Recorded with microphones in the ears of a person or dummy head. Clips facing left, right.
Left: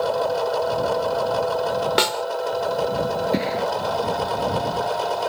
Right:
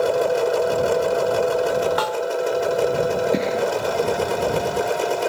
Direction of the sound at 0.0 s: 30° right (ahead or behind).